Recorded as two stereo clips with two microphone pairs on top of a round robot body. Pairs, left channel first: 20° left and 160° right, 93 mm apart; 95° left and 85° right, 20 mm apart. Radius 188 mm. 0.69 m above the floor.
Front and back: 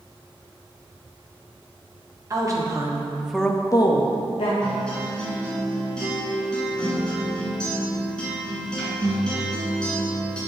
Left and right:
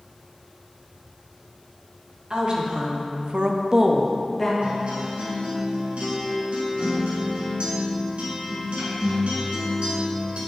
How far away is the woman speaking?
About 2 m.